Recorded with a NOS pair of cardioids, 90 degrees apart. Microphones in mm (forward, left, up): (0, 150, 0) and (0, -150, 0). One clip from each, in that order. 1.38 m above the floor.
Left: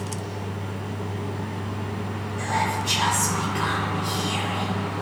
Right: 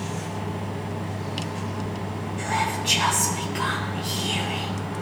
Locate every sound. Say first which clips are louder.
0.0 s a fan: right 1 dB; 30° right, 0.8 m
2.4 s whispering: left 1 dB; 30° right, 1.1 m